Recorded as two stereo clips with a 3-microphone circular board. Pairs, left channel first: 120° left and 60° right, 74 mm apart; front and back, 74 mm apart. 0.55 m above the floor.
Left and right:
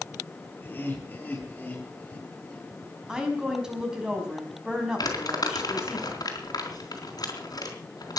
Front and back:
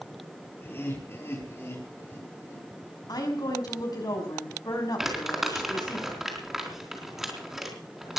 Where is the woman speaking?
20° left, 5 m.